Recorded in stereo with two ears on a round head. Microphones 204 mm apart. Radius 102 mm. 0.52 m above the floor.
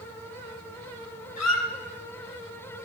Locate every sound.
1.4 s a squeak: 85° left, 2.5 m